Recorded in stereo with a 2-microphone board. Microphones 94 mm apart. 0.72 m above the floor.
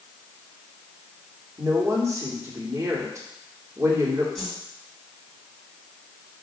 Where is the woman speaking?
35° right (ahead or behind), 2 m.